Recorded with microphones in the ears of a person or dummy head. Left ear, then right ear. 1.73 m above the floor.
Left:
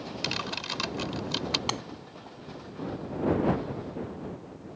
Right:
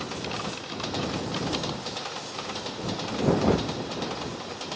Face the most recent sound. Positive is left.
turn(degrees=65)  # may be behind; listen again after turning